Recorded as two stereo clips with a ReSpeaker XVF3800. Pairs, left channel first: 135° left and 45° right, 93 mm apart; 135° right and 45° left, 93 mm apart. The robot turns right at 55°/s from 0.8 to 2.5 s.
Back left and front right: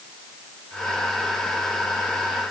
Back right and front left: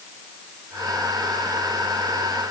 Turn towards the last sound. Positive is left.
No sound to turn to.